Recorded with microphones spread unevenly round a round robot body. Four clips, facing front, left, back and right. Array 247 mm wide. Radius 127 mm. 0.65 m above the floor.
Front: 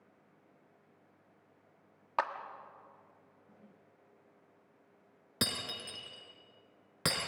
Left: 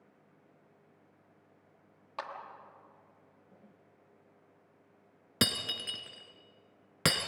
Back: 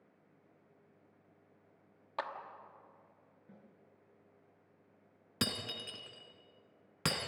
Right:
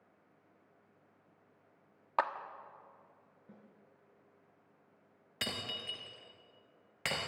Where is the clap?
50° right, 1.4 m.